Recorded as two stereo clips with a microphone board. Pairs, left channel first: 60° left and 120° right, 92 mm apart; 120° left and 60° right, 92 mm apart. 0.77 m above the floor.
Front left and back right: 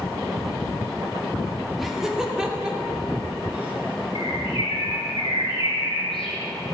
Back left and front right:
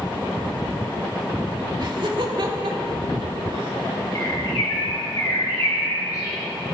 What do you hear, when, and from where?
1.8 s laughter: 30° right, 1.6 m; by 3.7 s 45° right, 3 m
4.2 s a bird: 70° left, 4 m